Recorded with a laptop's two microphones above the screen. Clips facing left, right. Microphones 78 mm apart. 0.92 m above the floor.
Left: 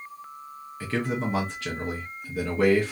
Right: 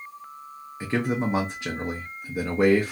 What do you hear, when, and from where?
0.8 s a man speaking: 20° right (ahead or behind), 0.7 m